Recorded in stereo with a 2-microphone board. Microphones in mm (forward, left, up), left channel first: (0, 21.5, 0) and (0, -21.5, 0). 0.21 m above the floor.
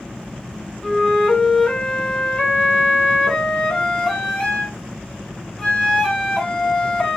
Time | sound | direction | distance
0.8 | a flute | 15° left (ahead or behind) | 0.6 m